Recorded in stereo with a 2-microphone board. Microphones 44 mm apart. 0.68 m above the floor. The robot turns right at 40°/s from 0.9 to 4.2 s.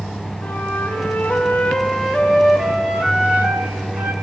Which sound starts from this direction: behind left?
A flute, at 0.4 s.